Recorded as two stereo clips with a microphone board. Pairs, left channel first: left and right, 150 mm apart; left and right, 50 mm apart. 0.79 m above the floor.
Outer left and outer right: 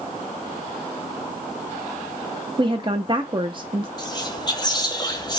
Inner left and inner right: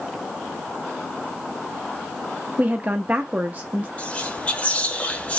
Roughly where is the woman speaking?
Right.